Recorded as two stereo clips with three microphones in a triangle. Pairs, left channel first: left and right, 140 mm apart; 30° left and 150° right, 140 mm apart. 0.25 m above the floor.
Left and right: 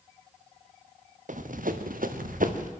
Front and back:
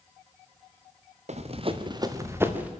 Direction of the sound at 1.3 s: 115° right.